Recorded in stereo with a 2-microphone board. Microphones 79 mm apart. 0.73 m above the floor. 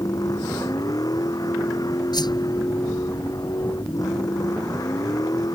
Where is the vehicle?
50° left (ahead or behind).